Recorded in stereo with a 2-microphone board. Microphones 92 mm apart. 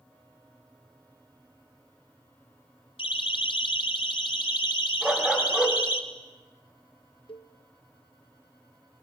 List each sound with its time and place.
3.0 s a siren: 85° left, 6 m; by 6.0 s 55° left (ahead or behind), 2.5 m
5.0 s a dog barking: 10° right (ahead or behind), 3.5 m
7.3 s a cowbell: 70° left (ahead or behind), 0.9 m